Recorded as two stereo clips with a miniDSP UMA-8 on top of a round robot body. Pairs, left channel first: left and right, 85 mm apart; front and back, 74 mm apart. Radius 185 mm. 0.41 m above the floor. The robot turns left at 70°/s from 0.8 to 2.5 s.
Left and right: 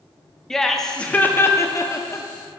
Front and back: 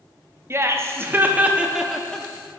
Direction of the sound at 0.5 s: 170° left.